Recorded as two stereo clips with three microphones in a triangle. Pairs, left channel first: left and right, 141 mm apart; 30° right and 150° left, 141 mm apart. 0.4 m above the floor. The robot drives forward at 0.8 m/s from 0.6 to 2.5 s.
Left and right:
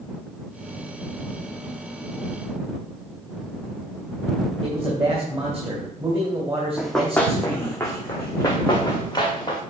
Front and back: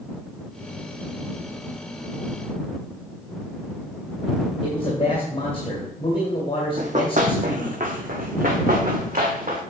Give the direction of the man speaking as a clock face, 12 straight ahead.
2 o'clock.